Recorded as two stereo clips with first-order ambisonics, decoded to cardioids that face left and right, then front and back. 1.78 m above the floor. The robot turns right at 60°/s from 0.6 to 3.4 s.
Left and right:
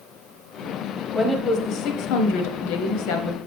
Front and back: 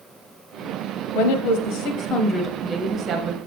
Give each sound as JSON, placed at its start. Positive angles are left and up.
{"t": 1.1, "sound": "a woman speaking", "azimuth_deg": 0, "distance_m": 1.0}